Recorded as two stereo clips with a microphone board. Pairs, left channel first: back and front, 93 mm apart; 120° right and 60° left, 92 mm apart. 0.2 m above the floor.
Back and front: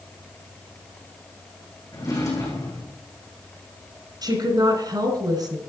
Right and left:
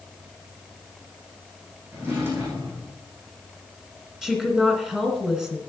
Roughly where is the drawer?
Behind left.